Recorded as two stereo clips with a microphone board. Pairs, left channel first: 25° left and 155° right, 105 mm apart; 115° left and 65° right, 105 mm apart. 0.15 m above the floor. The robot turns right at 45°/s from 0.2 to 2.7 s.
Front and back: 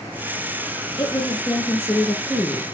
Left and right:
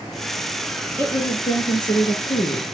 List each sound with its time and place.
1.0 s a woman speaking: 45° left, 1.5 m; by 2.6 s 120° left, 1.5 m